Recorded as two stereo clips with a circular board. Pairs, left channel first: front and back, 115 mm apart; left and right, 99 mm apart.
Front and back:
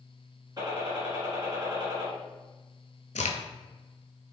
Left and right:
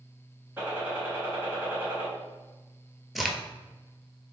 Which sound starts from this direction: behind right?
A gunshot, at 0.6 s.